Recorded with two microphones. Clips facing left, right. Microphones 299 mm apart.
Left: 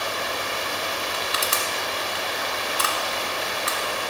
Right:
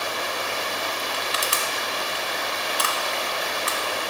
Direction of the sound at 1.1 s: 30° left (ahead or behind).